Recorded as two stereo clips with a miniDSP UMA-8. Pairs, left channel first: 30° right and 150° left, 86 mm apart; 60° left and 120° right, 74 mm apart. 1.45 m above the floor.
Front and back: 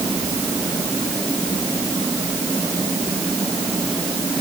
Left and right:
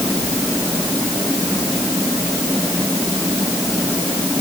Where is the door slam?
I don't hear a door slam.